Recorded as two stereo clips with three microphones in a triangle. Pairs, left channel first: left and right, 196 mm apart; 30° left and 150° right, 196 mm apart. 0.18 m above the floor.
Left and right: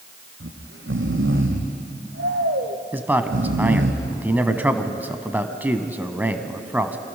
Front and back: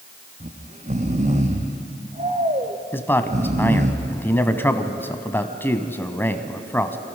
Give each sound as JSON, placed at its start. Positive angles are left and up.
{"t": 0.4, "sound": "snoring", "azimuth_deg": -95, "distance_m": 2.0}
{"t": 2.9, "sound": "a man speaking", "azimuth_deg": -25, "distance_m": 1.0}